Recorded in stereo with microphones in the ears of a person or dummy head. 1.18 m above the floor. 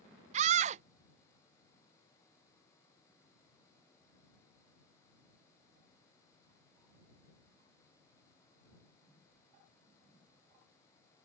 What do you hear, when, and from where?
0.3 s a scream: 35° right (ahead or behind)